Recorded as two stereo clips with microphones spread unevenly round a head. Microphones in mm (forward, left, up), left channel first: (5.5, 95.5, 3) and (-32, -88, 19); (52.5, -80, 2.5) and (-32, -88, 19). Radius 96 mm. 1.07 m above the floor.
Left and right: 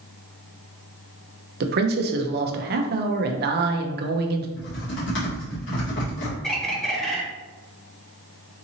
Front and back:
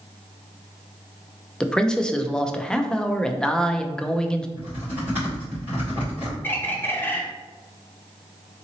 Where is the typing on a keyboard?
105° left, 1.8 m.